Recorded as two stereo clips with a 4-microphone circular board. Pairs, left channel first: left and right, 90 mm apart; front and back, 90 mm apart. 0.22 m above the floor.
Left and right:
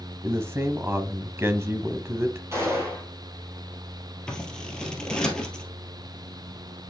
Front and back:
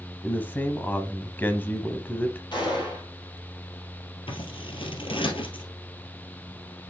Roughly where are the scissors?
Ahead.